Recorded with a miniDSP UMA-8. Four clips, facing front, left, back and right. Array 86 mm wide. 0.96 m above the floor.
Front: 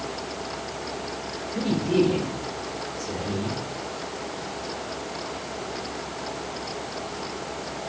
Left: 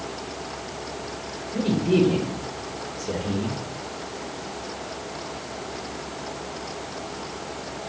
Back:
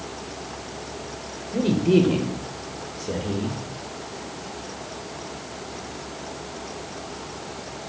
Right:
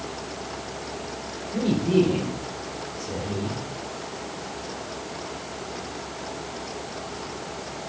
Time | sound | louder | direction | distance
1.5 | a man speaking | even, back 4 dB | 175° left | 3 m